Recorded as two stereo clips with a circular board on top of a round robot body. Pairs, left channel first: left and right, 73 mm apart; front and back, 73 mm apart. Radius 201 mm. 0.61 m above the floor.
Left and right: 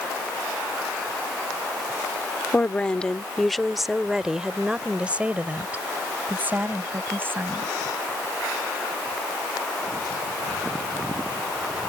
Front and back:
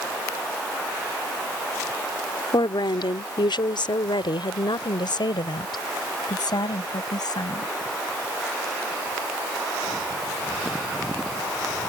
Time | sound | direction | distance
2.5 | a woman speaking | 20° left | ?